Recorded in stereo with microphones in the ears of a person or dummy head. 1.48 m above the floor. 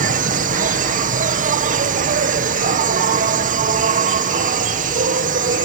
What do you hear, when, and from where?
0.0 s an insect: 40° right (ahead or behind)